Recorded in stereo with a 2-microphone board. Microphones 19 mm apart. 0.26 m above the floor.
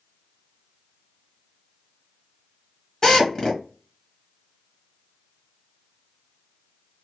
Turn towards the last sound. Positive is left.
turn(degrees=40)  # may be behind; listen again after turning